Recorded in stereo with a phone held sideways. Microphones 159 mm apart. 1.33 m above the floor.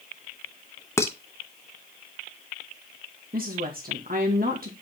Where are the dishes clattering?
15° left (ahead or behind), 0.7 m.